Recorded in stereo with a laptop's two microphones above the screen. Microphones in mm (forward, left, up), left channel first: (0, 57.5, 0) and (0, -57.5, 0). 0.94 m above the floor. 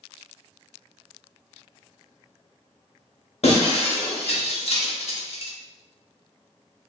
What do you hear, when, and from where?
3.4 s breaking glass: 60° left (ahead or behind), 0.5 m